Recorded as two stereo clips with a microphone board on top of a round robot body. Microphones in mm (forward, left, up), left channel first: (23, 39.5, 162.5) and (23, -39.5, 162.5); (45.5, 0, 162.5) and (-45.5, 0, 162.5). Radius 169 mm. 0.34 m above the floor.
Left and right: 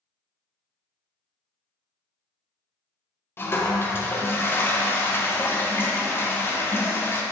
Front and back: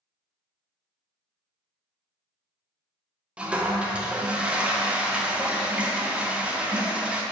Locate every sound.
3.4 s a toilet flushing: 115° left, 1.1 m